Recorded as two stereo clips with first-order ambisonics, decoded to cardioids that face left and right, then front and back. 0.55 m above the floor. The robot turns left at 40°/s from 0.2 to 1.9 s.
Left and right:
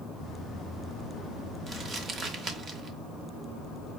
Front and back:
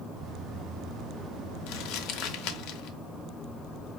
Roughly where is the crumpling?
Ahead.